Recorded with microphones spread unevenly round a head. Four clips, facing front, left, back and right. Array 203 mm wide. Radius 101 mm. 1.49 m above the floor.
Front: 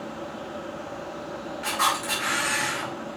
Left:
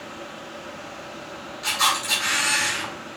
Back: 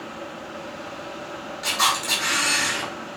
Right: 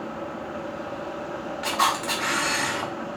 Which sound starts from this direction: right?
A camera shutter, at 1.6 s.